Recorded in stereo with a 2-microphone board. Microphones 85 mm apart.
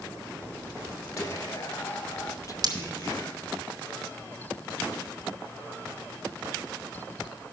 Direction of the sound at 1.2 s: 40° left (ahead or behind).